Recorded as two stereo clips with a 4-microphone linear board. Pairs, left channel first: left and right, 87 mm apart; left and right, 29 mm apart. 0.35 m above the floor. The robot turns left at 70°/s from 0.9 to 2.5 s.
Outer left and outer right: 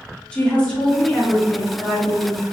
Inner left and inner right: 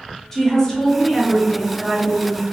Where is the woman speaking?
15° left (ahead or behind), 0.9 m; by 2.5 s 10° left (ahead or behind), 0.9 m.